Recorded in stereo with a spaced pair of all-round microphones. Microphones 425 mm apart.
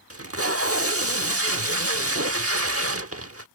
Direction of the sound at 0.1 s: 35° right (ahead or behind).